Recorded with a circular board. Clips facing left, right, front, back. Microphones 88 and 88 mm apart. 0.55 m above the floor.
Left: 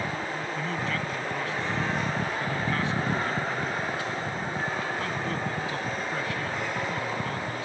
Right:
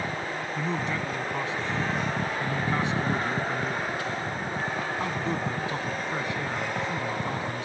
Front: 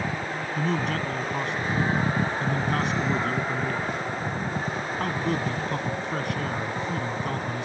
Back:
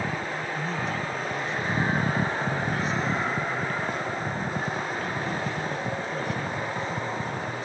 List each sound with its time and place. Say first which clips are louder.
0.6 s a man speaking: right 2 dB, front 6 dB; 20° right